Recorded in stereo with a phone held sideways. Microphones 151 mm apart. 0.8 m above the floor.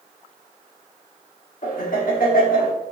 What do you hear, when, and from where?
1.6 s laughter: 70° left (ahead or behind), 2 m